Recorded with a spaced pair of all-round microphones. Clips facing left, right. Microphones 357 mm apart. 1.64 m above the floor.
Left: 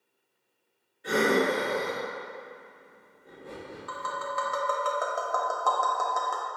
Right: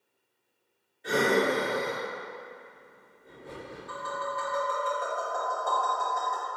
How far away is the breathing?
About 1.7 m.